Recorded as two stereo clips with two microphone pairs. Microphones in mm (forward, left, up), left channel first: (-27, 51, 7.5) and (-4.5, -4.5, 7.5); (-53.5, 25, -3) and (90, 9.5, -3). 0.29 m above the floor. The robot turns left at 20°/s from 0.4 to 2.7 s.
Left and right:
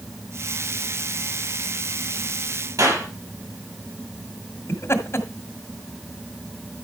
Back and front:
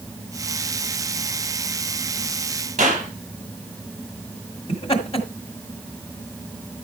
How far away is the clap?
About 5.5 m.